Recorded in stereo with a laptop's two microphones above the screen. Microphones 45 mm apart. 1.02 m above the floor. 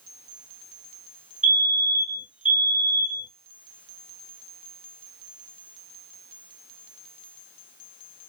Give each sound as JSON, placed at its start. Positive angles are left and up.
{"t": 1.4, "sound": "a fire alarm", "side_deg": -25, "distance_m": 1.6}